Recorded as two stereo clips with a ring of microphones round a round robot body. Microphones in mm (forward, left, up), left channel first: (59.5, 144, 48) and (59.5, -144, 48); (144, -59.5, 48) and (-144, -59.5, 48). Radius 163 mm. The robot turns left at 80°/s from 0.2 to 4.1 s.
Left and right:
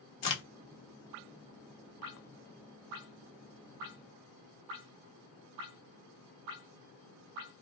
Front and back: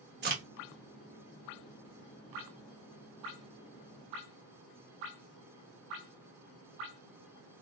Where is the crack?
125° left, 1.1 m; by 0.4 s 110° left, 1.1 m.